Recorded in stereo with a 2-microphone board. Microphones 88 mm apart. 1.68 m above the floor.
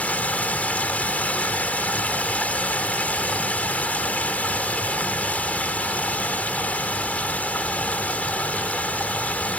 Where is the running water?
15° left (ahead or behind).